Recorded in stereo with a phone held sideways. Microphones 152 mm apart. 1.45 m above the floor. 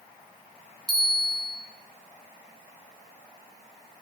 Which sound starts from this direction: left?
A bell, at 0.9 s.